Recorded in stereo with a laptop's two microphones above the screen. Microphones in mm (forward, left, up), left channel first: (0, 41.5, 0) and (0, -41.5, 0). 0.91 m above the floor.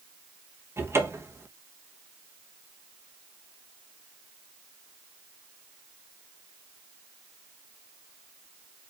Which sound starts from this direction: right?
A cupboard door, at 0.8 s.